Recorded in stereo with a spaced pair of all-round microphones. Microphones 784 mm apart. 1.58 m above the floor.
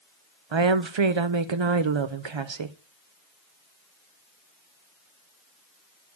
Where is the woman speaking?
40° right (ahead or behind), 0.6 m.